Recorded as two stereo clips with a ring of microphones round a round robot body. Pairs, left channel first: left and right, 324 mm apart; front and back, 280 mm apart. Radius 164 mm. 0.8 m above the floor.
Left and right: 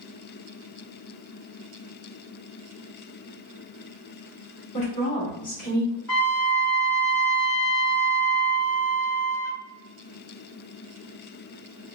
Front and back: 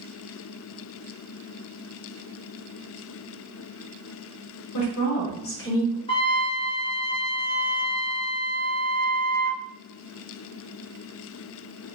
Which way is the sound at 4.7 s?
20° left.